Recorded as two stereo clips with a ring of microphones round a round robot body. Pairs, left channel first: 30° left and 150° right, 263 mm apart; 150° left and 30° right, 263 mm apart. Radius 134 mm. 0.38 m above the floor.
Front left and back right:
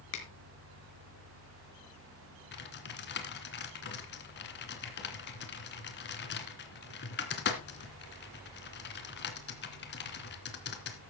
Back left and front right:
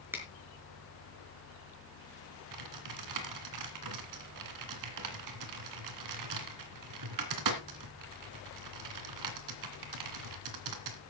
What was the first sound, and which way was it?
A finger snap, 50° left.